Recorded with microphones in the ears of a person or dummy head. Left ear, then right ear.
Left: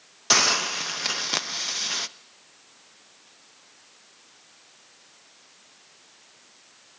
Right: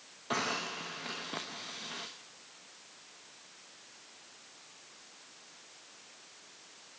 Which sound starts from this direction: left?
A hiss, at 0.3 s.